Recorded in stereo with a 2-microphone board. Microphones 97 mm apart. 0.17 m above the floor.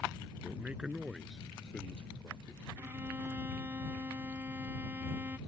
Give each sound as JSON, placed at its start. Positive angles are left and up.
{"t": 0.4, "sound": "a man speaking", "side_deg": -20}
{"t": 2.8, "sound": "a violin", "side_deg": -25}